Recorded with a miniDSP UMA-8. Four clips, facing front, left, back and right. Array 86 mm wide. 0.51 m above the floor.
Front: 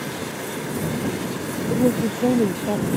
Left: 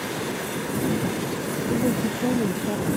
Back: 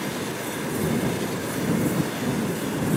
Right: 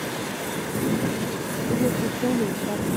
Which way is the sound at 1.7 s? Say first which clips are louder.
Even, front 6 dB; 10° right.